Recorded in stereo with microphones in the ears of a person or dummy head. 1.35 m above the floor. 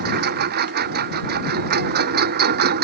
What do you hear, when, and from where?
0.0 s a lawn mower: 50° right (ahead or behind)